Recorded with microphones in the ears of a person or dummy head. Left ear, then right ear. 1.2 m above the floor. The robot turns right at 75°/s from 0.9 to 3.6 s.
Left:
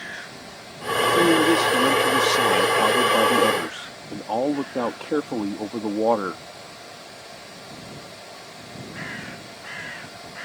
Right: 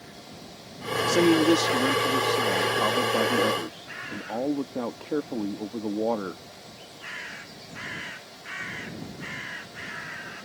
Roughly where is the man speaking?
Ahead right.